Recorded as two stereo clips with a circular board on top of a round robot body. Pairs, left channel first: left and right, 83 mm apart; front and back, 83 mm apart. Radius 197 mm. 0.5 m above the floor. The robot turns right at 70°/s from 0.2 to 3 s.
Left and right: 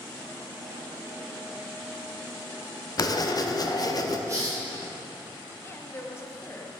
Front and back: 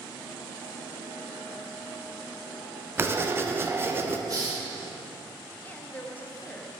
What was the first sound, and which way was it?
Writing, 120° left.